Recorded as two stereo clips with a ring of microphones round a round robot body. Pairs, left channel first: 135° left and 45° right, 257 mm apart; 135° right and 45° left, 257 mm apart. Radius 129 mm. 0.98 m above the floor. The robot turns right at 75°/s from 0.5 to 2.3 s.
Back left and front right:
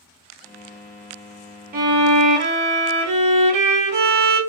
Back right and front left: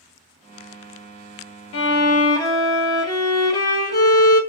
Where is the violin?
100° right, 0.7 m; by 4.4 s 60° right, 0.7 m.